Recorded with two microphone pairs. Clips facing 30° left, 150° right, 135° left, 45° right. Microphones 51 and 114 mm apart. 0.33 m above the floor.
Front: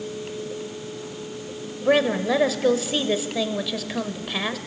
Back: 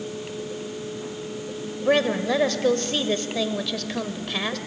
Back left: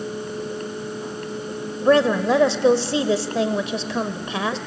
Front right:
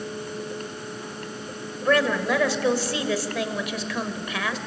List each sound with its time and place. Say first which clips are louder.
1.9 s a woman speaking: front 1 dB, back left 5 dB; 105° left, 1.0 m